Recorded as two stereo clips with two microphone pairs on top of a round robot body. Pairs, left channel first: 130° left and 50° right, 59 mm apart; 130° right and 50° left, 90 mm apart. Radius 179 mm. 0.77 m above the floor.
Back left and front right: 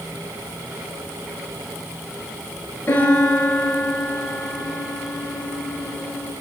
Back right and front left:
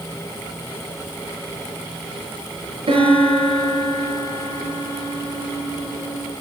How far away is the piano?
About 7 m.